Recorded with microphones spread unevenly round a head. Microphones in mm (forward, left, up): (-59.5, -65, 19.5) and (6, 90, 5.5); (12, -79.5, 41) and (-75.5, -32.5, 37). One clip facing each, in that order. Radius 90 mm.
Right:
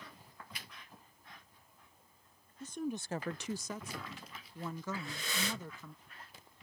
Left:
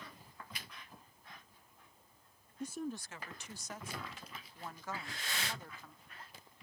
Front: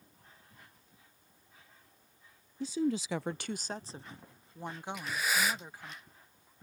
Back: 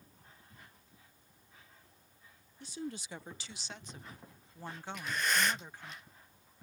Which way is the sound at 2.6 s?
5° right.